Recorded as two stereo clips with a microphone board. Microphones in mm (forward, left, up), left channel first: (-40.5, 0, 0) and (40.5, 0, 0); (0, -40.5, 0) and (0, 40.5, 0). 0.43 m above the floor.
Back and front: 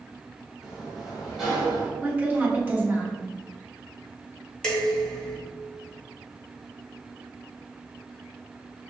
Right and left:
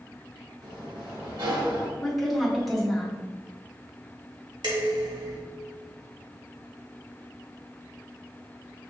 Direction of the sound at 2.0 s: Straight ahead.